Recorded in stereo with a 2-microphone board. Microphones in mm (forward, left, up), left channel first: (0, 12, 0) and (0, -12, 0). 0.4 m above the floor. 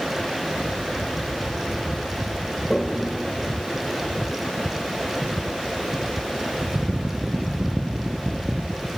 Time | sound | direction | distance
2.7 | a toilet flushing | 35° left (ahead or behind) | 1.7 m